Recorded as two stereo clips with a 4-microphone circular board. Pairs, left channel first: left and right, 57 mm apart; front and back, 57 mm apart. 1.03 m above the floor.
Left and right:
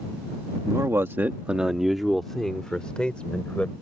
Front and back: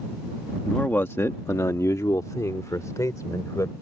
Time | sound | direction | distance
0.7 | a man speaking | 70° right | ?